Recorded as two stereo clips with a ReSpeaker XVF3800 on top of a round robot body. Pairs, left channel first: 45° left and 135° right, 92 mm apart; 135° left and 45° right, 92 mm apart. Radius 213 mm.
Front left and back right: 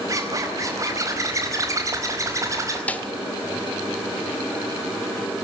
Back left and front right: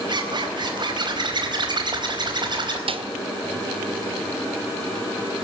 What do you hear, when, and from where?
0.1 s a zipper: 80° right, 4.5 m
2.9 s a snare drum: 30° right, 2 m